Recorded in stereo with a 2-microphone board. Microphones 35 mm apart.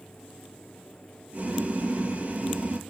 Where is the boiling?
40° right (ahead or behind), 1.6 m.